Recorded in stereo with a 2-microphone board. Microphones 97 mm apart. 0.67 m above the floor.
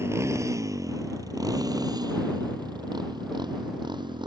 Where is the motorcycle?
30° right (ahead or behind); by 4.3 s 50° right (ahead or behind).